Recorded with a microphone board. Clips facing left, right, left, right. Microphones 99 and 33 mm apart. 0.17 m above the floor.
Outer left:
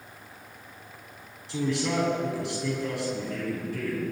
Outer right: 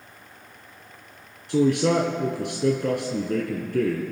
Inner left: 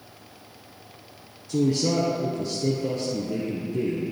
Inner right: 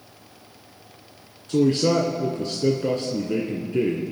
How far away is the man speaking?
About 1.8 m.